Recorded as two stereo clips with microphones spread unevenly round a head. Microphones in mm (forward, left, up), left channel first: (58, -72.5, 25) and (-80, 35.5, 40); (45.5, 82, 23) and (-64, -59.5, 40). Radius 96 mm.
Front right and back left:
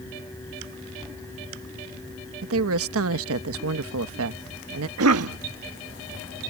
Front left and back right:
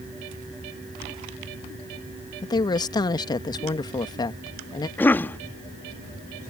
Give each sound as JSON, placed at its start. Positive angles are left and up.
{"t": 2.4, "sound": "a woman speaking", "azimuth_deg": 125}
{"t": 5.0, "sound": "a cough", "azimuth_deg": 135}